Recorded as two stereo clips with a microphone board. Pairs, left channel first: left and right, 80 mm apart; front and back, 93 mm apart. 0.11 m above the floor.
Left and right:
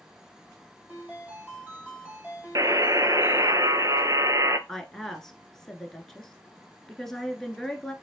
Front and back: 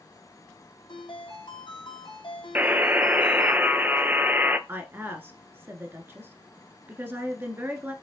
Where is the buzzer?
115° right, 0.5 m.